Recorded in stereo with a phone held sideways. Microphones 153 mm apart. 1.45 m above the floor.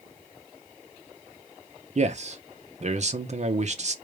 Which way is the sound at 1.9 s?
50° right (ahead or behind).